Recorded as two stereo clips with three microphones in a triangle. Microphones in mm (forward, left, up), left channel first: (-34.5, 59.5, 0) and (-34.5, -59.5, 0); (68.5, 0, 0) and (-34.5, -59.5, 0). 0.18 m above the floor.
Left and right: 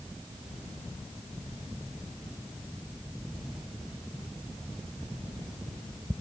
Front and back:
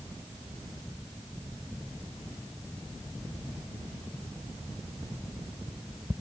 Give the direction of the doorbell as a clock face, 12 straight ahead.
I don't hear a doorbell.